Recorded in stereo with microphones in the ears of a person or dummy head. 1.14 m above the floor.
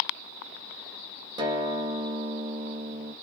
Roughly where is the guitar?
Right.